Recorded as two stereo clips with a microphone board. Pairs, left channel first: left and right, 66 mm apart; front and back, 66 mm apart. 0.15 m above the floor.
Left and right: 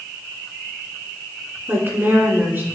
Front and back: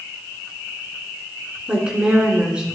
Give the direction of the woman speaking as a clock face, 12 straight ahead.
4 o'clock.